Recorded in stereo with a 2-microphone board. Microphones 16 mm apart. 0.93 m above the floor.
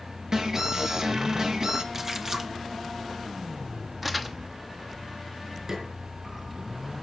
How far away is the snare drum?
About 5 m.